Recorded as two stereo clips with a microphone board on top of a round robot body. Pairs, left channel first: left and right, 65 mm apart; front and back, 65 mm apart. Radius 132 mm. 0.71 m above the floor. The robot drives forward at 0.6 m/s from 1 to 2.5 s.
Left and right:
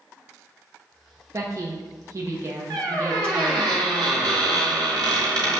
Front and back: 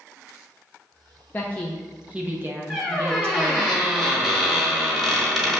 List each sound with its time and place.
1.3 s a woman speaking: 55° right, 0.7 m; by 3.7 s 130° right, 0.7 m
2.7 s a squeak: 95° right, 1.1 m